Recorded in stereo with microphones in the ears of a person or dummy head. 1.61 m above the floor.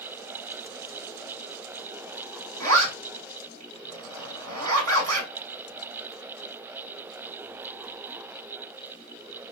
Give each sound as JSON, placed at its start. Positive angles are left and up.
{"t": 2.6, "sound": "a zipper", "side_deg": -75, "distance_m": 1.1}